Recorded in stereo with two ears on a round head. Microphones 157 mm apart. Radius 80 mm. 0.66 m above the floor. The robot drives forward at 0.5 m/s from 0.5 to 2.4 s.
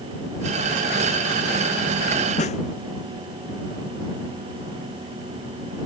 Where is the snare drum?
40° left (ahead or behind).